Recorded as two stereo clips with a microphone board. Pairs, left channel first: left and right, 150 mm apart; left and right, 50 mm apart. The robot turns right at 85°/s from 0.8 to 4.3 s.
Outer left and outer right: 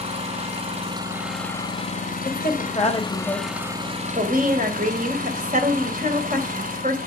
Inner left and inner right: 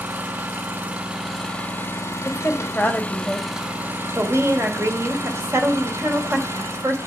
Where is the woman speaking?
85° left, 2.5 m; by 7.0 s 100° right, 2.5 m.